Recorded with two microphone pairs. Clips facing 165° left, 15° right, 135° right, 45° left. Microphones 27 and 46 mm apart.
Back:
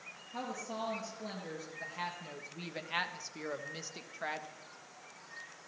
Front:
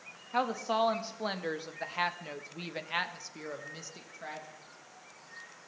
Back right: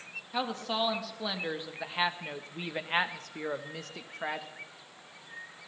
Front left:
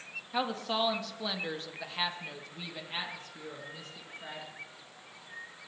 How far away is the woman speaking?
About 1.7 m.